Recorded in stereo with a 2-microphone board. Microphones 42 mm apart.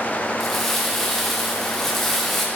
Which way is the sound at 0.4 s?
10° left (ahead or behind).